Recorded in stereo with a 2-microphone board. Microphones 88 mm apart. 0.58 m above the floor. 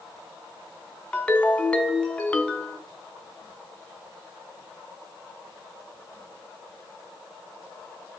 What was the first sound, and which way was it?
A ringtone, 15° left (ahead or behind).